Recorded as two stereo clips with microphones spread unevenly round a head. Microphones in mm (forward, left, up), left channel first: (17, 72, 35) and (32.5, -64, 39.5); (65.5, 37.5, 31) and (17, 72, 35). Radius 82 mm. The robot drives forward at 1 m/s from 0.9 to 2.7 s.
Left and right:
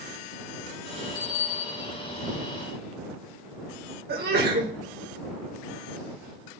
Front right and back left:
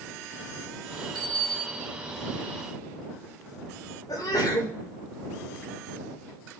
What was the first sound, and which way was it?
A bicycle bell, 145° left.